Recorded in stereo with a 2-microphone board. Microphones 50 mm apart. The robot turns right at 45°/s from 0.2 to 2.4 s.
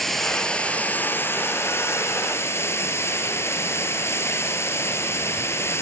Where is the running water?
5° left, 1.8 m; by 5.8 s 105° left, 1.8 m.